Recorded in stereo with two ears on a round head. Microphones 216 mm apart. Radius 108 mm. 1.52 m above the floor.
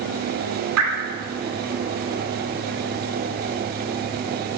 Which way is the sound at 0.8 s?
65° right (ahead or behind).